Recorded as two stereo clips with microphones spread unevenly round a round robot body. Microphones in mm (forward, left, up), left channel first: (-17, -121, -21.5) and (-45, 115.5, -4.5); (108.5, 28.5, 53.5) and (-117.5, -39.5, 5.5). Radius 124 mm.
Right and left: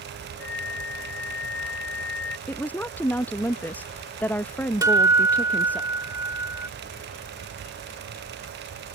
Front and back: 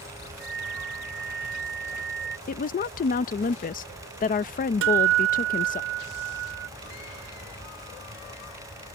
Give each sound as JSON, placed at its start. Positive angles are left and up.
{"t": 0.4, "sound": "a flute", "azimuth_deg": -120}
{"t": 2.5, "sound": "a woman speaking", "azimuth_deg": -15}
{"t": 4.8, "sound": "a guitar", "azimuth_deg": 170}